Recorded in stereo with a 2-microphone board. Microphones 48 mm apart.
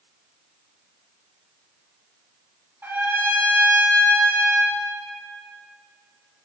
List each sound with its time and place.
2.8 s a trumpet: 40° right (ahead or behind), 1.6 m